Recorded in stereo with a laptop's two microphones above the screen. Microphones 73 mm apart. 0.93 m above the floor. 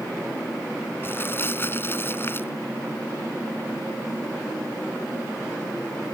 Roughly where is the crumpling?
Left.